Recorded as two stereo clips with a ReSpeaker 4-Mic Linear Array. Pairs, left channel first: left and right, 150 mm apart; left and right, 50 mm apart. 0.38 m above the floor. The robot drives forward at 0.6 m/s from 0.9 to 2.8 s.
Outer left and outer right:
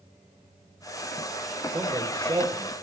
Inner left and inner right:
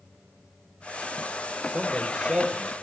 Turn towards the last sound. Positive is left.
turn(degrees=-20)  # may be behind; listen again after turning